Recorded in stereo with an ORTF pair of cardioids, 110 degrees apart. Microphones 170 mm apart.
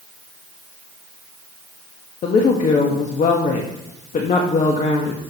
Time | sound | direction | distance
2.2 | a woman speaking | 45° left | 1.3 m